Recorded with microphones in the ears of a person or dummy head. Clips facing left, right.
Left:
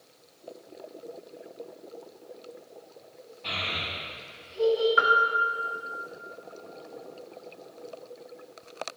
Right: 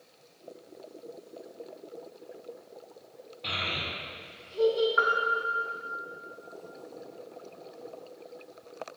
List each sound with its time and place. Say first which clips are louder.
3.4 s a child speaking: even; 50° right (ahead or behind), 2.5 m; by 4.9 s 75° right (ahead or behind), 3 m
5.0 s a piano: left 3 dB; 35° left (ahead or behind), 0.7 m